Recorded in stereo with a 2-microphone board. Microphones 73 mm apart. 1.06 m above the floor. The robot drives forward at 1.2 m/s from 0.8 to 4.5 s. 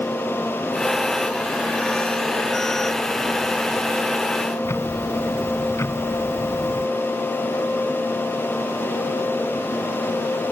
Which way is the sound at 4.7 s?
40° left (ahead or behind).